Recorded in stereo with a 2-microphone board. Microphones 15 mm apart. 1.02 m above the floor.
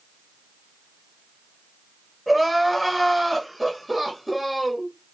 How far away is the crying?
About 1.9 m.